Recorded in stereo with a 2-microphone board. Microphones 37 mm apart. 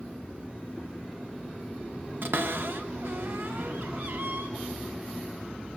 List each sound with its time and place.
2.2 s a cupboard door: 65° right (ahead or behind), 1.4 m